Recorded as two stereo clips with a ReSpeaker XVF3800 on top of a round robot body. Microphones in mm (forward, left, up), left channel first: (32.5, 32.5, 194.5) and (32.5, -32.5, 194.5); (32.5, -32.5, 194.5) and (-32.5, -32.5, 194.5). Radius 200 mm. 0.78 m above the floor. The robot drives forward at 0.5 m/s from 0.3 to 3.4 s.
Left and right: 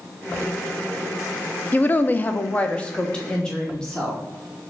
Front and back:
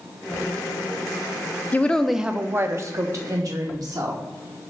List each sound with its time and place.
1.7 s a woman speaking: 45° left, 0.5 m; by 4.2 s 165° left, 0.8 m